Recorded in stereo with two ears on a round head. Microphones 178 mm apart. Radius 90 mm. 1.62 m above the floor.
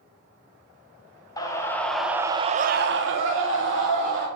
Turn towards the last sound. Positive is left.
turn(degrees=-65)  # may be behind; listen again after turning